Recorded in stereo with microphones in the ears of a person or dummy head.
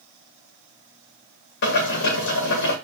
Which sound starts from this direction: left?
Boiling, at 1.6 s.